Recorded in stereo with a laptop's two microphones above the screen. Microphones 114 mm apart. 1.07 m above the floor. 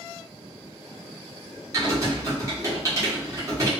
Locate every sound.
1.7 s typing on a keyboard: 30° right (ahead or behind), 0.9 m